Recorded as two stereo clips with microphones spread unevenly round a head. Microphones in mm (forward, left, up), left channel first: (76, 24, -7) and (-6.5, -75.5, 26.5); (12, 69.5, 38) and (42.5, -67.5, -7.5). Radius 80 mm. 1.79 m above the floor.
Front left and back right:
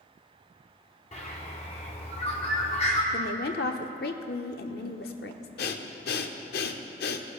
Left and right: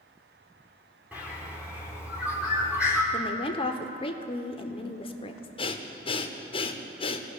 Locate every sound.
1.1 s a bird: 20° left, 1.9 m
3.1 s a woman speaking: 70° left, 0.8 m
5.6 s breathing: 55° left, 0.7 m